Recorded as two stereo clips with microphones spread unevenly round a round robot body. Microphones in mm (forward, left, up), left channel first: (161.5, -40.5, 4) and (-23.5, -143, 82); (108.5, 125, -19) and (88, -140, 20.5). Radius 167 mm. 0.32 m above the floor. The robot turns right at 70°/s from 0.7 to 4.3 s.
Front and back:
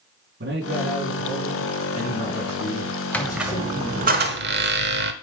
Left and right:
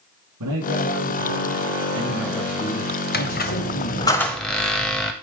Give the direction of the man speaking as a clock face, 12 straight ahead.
4 o'clock.